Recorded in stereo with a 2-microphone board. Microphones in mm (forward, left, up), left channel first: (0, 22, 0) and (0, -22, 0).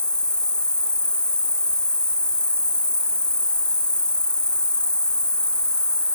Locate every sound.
0.0 s an insect: 20° left (ahead or behind), 1.2 m